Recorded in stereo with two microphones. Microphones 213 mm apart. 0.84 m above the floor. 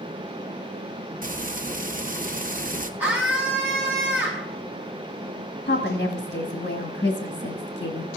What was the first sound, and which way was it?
Frying, 40° right (ahead or behind).